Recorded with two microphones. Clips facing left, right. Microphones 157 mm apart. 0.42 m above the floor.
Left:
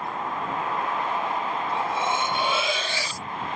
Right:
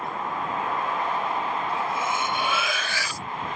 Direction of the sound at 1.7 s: 30° left (ahead or behind).